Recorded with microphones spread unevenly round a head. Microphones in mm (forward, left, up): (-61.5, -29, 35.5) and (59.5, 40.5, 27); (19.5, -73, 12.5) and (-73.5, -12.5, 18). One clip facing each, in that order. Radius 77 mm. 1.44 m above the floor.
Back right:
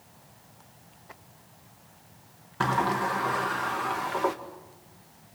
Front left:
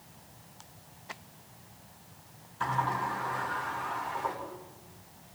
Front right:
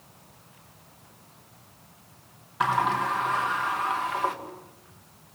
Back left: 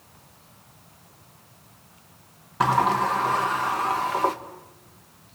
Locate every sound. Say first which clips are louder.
2.6 s a sliding door: back right 5 dB, back left 4 dB; 160° right, 2 m